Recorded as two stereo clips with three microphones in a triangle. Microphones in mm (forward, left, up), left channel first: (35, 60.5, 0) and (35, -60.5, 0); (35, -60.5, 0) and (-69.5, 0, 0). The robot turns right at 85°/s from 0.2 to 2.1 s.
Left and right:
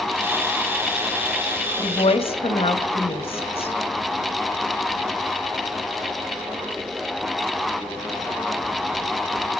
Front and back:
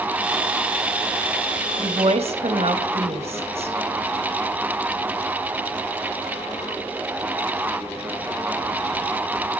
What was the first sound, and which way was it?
A woman speaking, 95° left.